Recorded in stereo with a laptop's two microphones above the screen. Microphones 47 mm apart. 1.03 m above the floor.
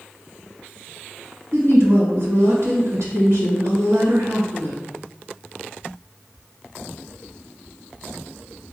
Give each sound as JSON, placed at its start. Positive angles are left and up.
{"t": 1.5, "sound": "a woman speaking", "side_deg": -80, "distance_m": 1.7}